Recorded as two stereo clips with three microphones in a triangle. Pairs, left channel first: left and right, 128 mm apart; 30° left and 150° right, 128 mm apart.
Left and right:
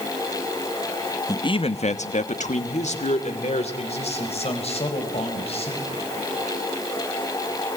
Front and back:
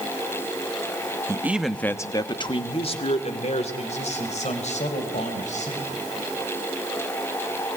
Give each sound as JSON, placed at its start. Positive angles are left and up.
{"t": 1.3, "sound": "a man speaking", "azimuth_deg": 150, "distance_m": 0.9}